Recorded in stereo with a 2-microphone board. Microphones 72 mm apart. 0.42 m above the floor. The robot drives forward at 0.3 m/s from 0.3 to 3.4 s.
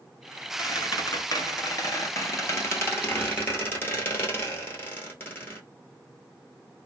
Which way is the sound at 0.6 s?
65° left (ahead or behind).